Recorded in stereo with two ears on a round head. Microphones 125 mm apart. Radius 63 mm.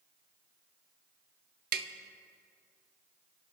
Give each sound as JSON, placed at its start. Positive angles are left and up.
{"t": 1.7, "sound": "tapping", "side_deg": -75, "distance_m": 0.8}